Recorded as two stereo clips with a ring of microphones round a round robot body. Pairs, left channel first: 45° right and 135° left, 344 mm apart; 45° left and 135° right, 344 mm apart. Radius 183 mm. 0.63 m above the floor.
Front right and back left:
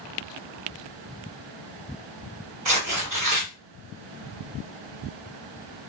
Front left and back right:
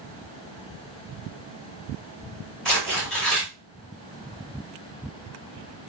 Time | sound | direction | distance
2.6 | tearing paper | 135° left | 1.7 m